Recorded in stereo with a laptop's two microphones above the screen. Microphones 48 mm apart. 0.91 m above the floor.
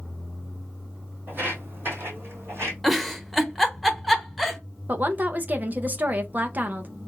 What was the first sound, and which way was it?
Footsteps, 40° right (ahead or behind).